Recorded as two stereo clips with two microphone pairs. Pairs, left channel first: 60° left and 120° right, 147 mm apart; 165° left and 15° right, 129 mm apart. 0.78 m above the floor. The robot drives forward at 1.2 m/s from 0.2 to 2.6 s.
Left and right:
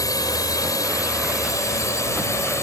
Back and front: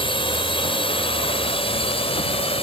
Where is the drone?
125° left; by 2.6 s 130° left.